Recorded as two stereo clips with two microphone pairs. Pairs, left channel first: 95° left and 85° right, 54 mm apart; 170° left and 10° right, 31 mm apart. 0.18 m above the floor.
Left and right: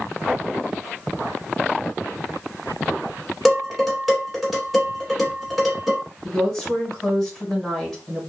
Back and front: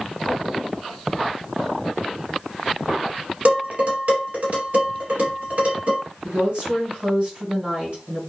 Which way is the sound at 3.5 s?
5° left.